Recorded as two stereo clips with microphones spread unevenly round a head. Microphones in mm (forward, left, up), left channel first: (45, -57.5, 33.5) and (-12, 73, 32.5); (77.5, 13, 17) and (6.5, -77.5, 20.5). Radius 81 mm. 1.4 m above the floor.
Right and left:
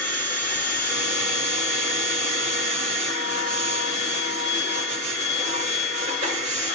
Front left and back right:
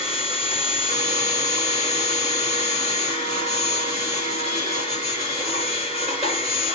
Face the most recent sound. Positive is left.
turn(degrees=165)